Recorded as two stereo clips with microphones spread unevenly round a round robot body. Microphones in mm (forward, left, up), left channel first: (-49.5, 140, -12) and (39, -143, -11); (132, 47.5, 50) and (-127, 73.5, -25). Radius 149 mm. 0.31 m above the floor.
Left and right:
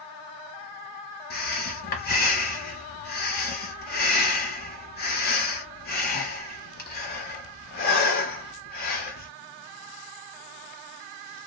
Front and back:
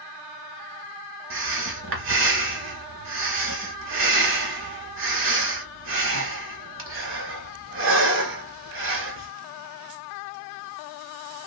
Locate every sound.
1.3 s breathing: 165° left, 1.0 m